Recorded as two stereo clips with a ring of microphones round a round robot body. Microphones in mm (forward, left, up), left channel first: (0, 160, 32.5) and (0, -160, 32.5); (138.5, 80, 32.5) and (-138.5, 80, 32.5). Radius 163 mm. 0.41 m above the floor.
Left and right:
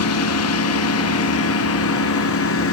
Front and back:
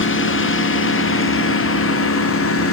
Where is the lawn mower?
45° left; by 2.7 s 40° left.